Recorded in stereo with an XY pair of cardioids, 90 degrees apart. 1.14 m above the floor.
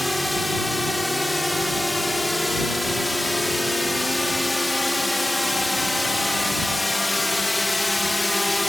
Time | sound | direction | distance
0.0 | a drone | 10° left | ?